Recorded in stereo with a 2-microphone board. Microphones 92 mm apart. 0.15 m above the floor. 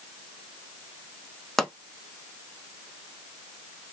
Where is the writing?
I don't hear writing.